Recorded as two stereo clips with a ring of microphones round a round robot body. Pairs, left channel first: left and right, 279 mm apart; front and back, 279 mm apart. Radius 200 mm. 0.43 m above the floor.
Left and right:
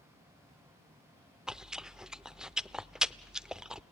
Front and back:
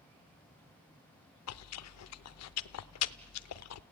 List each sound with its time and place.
1.5 s chewing: 5° right, 0.6 m